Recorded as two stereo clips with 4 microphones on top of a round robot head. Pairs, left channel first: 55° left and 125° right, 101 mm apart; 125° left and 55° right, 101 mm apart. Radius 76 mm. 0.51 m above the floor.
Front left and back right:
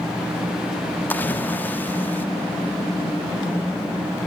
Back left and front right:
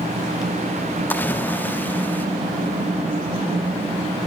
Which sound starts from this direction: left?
A splash, at 1.1 s.